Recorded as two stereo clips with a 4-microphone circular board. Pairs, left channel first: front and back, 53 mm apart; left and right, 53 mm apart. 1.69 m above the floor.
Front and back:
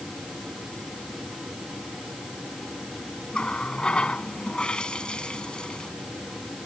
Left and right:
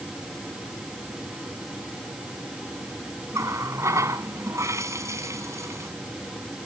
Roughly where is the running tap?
Right.